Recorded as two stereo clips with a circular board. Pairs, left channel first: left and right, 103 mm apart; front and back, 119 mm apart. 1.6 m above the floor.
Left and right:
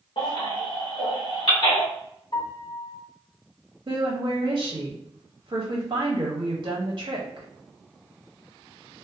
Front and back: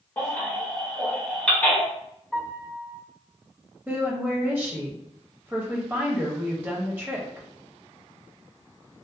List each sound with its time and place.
0.2 s a baby crying: 80° left, 1.3 m
2.3 s a piano: 100° left, 1.3 m
3.9 s a woman speaking: 110° right, 0.7 m